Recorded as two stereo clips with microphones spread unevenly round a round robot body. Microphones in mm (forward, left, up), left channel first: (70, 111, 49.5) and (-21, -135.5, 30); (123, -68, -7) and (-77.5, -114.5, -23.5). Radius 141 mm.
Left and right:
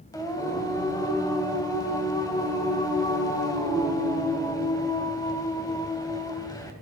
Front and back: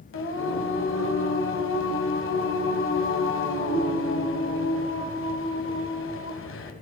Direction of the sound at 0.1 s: 10° right.